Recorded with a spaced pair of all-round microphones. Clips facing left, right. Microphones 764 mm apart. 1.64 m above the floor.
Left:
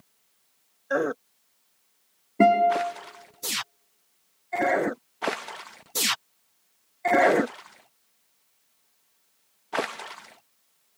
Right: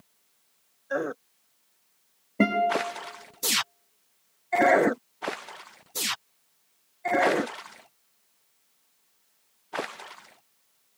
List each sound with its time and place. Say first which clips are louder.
2.4 s a guitar: left 3 dB; 15° right (ahead or behind), 1.1 m